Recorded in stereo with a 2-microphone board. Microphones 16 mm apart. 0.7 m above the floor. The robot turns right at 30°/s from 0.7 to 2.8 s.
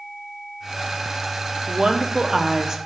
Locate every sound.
1.7 s a woman speaking: 80° right, 0.7 m; by 2.8 s 50° right, 0.7 m